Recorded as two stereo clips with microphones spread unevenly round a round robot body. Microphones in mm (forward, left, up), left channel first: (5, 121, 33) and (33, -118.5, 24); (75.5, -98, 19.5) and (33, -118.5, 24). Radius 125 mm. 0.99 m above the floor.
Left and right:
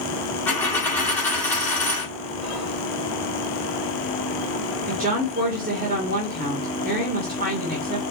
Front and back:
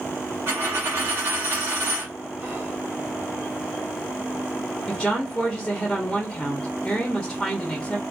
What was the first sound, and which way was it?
A dropped coin, 175° left.